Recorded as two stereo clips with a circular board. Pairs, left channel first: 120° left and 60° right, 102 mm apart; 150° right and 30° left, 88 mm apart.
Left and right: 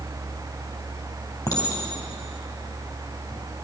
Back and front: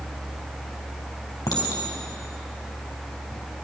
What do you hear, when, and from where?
1.5 s a clink: 165° left, 3 m